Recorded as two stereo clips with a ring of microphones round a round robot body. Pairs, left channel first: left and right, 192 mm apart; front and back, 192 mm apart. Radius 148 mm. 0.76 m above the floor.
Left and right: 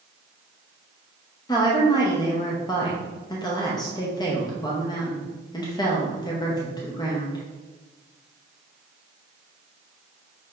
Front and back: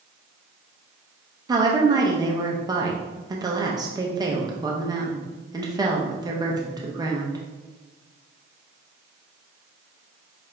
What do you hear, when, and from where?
1.5 s a woman speaking: 135° left, 0.7 m